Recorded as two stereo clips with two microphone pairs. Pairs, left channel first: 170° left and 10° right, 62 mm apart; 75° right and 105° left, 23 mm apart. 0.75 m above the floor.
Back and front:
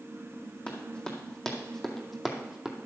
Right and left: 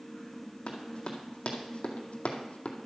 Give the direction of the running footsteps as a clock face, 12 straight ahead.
4 o'clock.